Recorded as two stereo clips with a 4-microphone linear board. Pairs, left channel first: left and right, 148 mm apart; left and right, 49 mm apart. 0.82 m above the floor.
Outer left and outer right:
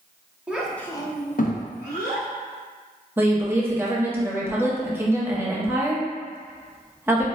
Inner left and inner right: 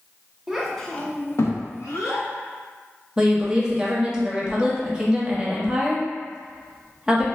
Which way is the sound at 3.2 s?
15° right (ahead or behind).